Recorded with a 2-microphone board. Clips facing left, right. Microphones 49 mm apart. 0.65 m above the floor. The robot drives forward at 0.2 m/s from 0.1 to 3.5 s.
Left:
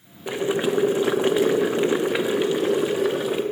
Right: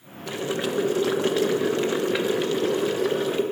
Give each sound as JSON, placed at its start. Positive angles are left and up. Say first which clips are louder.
{"t": 0.3, "sound": "boiling", "louder": "left 4 dB", "side_deg": 20, "distance_m": 0.6}